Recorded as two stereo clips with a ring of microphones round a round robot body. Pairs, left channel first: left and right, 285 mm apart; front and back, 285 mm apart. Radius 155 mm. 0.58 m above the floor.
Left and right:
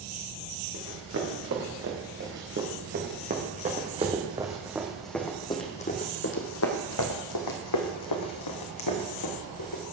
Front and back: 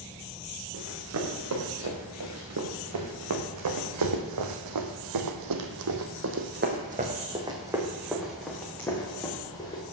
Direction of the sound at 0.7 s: 140° right.